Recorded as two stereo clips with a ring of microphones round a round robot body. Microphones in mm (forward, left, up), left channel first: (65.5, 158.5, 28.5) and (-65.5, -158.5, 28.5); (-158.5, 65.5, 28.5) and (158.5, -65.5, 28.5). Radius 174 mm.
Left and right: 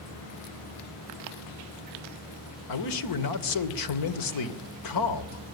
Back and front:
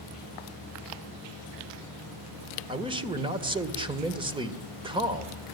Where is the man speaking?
50° left, 2 m.